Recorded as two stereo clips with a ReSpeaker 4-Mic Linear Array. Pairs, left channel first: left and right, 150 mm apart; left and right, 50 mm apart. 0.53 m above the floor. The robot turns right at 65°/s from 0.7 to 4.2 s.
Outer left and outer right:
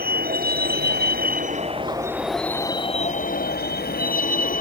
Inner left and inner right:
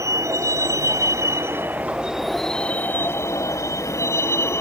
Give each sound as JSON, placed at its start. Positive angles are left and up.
{"t": 0.0, "sound": "a vehicle", "side_deg": -75}